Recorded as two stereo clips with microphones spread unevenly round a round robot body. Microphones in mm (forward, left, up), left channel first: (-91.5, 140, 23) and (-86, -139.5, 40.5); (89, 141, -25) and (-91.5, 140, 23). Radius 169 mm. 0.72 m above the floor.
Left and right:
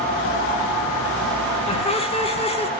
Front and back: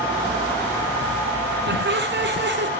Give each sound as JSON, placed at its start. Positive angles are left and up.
{"t": 1.7, "sound": "laughter", "azimuth_deg": 160, "distance_m": 7.0}